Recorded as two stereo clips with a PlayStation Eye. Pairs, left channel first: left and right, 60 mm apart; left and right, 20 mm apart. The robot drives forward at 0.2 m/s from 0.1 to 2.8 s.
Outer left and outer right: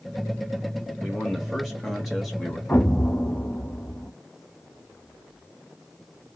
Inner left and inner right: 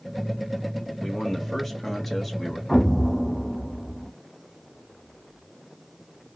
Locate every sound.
1.0 s a man speaking: 5° right (ahead or behind), 0.8 m
2.7 s an explosion: 35° left (ahead or behind), 0.7 m